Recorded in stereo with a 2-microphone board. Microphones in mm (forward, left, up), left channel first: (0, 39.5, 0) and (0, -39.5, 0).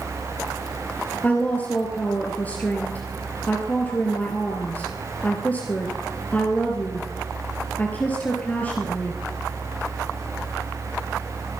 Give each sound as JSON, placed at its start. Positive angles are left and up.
{"t": 1.2, "sound": "a woman speaking", "side_deg": 20, "distance_m": 2.0}